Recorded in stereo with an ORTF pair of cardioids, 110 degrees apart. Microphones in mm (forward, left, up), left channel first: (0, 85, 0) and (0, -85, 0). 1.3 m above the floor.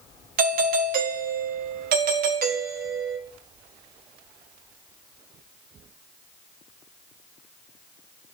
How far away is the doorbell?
About 1.7 m.